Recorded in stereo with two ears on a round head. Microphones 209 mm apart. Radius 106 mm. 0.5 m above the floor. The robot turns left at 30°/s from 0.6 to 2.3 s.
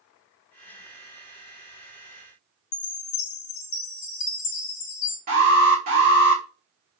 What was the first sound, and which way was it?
A chime, 80° left.